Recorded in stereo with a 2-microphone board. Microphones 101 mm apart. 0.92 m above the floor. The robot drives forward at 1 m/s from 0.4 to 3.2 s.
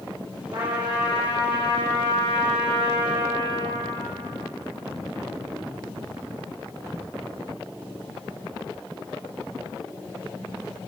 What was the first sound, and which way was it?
A trumpet, 45° right (ahead or behind).